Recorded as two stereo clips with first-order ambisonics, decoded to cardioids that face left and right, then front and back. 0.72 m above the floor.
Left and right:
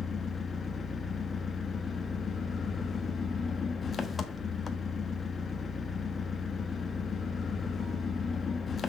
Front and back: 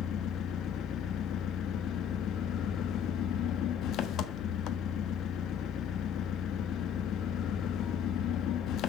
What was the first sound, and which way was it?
An engine running, 25° left.